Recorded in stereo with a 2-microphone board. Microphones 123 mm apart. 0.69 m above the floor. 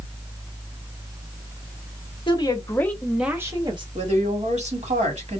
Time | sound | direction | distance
2.3 | a woman speaking | 40° left (ahead or behind) | 0.9 m
4.0 | a woman speaking | 65° right (ahead or behind) | 1.5 m